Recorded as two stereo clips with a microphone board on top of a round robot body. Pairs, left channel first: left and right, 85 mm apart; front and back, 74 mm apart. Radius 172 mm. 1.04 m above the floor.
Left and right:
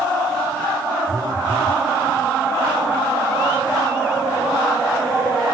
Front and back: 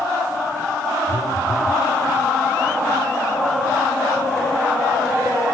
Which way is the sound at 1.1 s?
45° right.